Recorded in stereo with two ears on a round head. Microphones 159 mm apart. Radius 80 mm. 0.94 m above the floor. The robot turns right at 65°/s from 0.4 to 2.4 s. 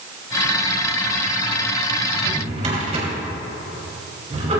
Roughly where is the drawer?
Right.